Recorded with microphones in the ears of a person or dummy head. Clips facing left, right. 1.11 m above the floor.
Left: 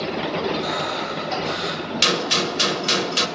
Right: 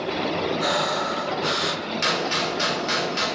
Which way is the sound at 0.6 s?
80° right.